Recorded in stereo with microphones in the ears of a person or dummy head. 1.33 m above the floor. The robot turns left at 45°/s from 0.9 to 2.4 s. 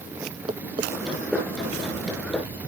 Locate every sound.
0.5 s tapping: 30° right (ahead or behind), 0.6 m